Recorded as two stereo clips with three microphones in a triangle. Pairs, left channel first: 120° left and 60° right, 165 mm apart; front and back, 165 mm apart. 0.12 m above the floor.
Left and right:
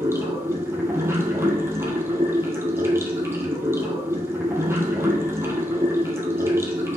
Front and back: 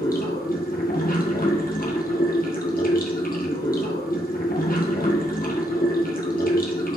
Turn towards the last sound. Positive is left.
turn(degrees=15)